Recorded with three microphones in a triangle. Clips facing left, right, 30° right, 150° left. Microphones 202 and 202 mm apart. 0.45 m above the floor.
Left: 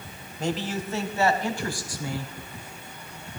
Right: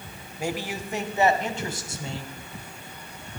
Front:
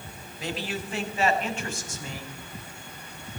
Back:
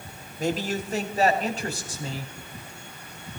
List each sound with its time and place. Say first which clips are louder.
0.4 s a man speaking: left 2 dB, back 6 dB; 170° right, 1.9 m; by 2.3 s 150° right, 3 m